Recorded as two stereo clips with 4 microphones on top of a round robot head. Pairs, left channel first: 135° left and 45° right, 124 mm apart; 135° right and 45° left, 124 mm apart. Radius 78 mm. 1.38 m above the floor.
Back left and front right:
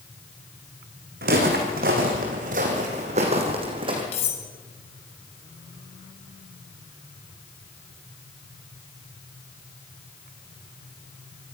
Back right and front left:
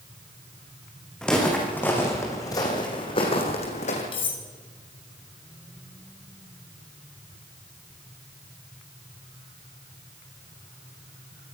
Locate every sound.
1.2 s footsteps: 50° right, 4.5 m; by 4.0 s 100° right, 4 m
4.1 s cutlery clinking: 175° left, 4 m